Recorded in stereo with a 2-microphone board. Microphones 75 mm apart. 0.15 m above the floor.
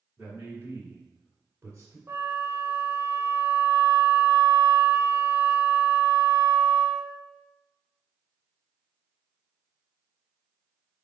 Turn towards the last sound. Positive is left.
turn(degrees=-35)  # may be behind; listen again after turning